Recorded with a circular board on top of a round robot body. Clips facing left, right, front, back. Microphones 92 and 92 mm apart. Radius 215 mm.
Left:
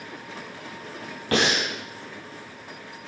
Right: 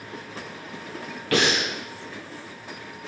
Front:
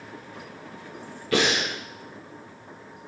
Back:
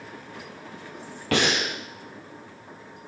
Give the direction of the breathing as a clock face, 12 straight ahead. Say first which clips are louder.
Even, even; 7 o'clock.